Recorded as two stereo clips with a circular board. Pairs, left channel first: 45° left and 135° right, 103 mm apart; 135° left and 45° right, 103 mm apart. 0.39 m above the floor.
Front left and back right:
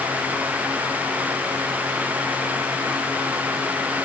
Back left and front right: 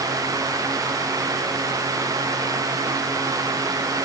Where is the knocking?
No knocking in this recording.